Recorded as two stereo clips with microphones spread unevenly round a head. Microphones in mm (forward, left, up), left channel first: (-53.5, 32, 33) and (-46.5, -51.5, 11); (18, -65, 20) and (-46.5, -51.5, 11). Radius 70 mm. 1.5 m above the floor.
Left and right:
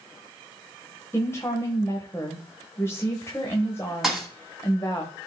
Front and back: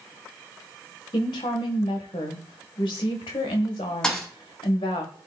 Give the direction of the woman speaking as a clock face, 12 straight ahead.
11 o'clock.